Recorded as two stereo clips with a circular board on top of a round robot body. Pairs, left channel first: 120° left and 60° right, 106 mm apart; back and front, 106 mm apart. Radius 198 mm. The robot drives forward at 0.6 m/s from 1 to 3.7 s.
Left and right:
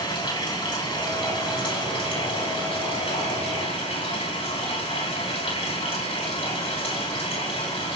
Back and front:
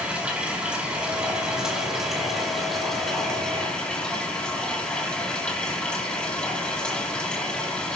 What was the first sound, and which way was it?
Running water, 80° left.